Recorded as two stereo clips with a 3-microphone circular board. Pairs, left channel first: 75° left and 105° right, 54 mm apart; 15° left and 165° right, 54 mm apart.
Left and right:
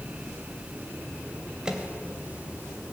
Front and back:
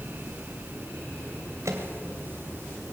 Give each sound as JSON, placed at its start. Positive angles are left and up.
{"t": 1.6, "sound": "a microwave", "azimuth_deg": 180, "distance_m": 2.5}